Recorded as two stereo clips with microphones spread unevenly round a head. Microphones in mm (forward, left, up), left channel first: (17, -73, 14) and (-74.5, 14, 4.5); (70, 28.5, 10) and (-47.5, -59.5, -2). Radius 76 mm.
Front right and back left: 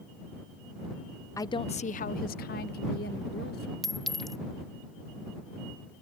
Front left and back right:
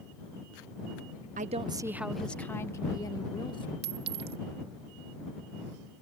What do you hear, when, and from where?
1.4 s a woman speaking: 110° right; by 3.7 s 25° right
3.8 s a clink: 130° right